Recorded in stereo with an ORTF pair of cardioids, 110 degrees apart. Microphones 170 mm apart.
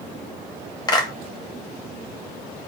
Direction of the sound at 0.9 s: 25° left.